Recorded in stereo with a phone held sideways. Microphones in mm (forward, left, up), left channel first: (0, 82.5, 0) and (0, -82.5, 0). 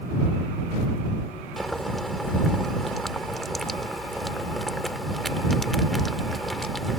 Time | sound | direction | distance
1.6 | boiling | centre (ahead or behind) | ?